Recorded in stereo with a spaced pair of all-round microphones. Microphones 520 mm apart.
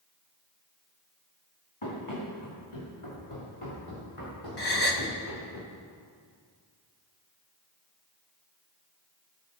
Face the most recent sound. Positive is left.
turn(degrees=50)  # may be behind; listen again after turning